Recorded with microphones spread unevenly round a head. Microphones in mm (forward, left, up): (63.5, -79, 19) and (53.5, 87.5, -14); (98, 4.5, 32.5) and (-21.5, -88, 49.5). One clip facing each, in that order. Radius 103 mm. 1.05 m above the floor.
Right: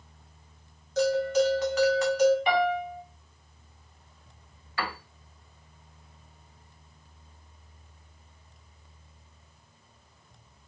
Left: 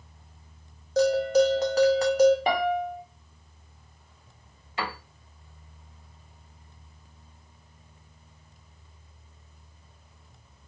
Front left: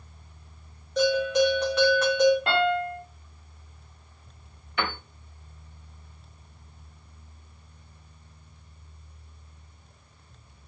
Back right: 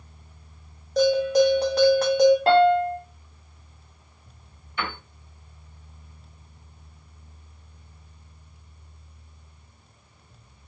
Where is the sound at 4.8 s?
30° left, 1.3 m.